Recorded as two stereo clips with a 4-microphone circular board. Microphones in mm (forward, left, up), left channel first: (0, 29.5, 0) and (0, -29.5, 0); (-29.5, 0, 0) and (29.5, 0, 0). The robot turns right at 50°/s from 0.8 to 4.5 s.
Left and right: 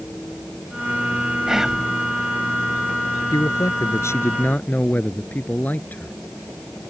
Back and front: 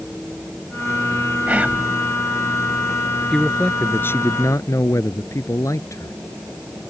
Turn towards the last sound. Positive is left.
turn(degrees=150)